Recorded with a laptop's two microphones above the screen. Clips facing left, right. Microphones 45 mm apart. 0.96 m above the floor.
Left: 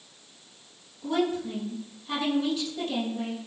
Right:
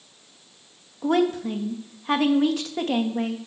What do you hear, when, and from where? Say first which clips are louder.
1.0 s a woman speaking: right 5 dB; 55° right (ahead or behind), 1.0 m